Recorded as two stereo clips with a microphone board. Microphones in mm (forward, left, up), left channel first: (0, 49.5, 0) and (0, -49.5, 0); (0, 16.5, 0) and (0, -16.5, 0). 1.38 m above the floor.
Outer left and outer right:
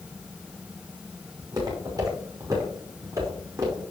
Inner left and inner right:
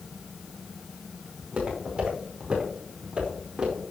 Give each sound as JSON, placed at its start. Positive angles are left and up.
{"t": 1.4, "sound": "footsteps", "side_deg": -45, "distance_m": 5.5}